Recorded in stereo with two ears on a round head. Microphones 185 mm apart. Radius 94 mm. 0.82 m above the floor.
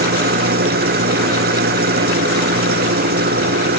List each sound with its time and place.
0.0 s an engine running: 50° right (ahead or behind)